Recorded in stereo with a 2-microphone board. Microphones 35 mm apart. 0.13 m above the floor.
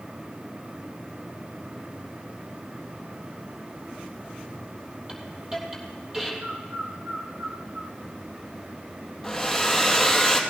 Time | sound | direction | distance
5.1 | a hiss | 10° right (ahead or behind) | 3.5 m
6.4 | a bird | 50° right (ahead or behind) | 2.5 m
9.2 | a hair dryer | 5° left (ahead or behind) | 2 m